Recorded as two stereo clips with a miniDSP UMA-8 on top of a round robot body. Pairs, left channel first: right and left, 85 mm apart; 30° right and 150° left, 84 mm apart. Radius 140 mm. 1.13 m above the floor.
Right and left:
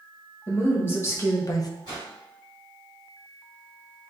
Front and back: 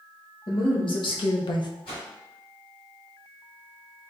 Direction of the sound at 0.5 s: 20° right.